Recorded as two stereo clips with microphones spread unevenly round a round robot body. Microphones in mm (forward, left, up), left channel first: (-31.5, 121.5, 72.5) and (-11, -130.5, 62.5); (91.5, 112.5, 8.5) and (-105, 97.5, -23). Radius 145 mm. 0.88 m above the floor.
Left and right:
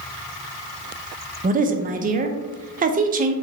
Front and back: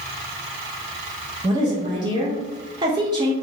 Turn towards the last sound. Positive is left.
turn(degrees=-125)